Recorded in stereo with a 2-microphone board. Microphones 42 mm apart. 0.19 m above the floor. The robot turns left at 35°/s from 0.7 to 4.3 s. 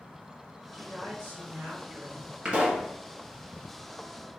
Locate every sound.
0.7 s a woman speaking: 30° left, 1.9 m; by 2.4 s 25° right, 1.9 m
2.5 s a pop: 25° right (ahead or behind), 1.0 m; by 2.9 s 35° right (ahead or behind), 1.0 m